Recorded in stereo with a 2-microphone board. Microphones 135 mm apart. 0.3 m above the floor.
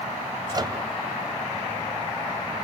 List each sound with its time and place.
0.5 s a microwave: 30° right (ahead or behind), 1.6 m